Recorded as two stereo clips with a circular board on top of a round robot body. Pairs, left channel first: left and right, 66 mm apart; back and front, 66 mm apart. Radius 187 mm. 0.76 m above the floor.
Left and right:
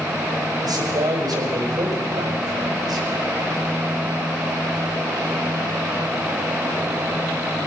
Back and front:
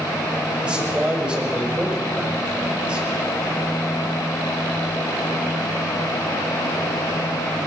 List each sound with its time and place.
0.6 s a man speaking: 70° right, 6 m